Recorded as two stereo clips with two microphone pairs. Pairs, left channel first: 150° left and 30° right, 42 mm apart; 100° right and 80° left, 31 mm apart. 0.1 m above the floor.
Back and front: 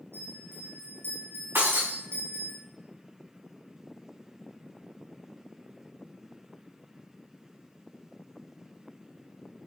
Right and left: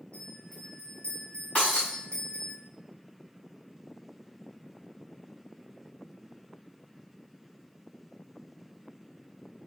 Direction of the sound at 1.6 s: 50° right.